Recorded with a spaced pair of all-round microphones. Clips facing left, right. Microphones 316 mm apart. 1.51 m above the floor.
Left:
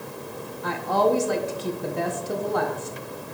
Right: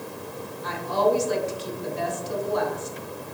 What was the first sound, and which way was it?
A woman speaking, 60° left (ahead or behind).